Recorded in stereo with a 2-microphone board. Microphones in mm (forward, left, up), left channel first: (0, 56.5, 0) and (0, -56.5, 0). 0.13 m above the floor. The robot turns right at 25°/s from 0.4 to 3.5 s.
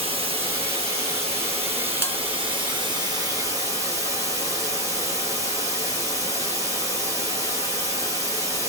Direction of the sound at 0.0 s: 110° right.